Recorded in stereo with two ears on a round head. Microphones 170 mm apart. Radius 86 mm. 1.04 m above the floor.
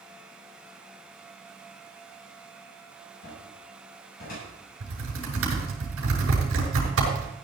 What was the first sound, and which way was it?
A cupboard door, 55° left (ahead or behind).